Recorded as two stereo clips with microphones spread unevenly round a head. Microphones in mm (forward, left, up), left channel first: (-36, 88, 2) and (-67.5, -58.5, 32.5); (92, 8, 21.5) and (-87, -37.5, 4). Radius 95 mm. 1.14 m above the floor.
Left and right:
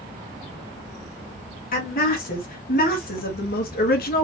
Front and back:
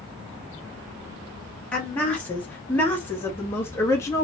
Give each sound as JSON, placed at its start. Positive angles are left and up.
{"t": 1.7, "sound": "a woman speaking", "azimuth_deg": 95, "distance_m": 3.0}